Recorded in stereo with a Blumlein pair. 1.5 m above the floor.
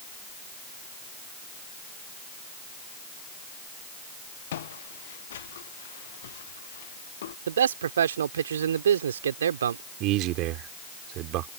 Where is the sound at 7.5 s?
65° right.